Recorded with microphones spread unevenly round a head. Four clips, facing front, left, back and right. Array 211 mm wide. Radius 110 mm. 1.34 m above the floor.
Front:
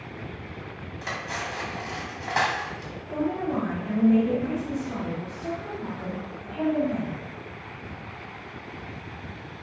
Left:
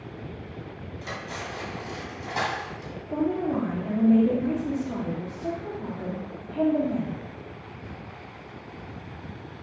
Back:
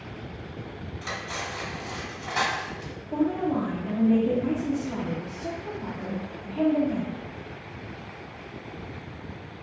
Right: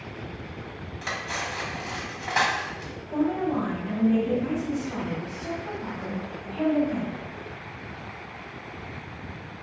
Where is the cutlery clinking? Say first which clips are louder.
Right 4 dB, front 2 dB; 40° right, 1.0 m.